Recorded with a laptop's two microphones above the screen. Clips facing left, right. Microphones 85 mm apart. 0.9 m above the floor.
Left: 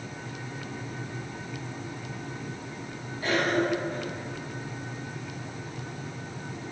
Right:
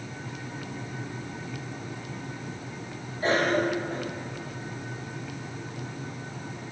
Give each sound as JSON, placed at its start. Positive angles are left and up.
{"t": 3.2, "sound": "a cough", "side_deg": -35, "distance_m": 1.7}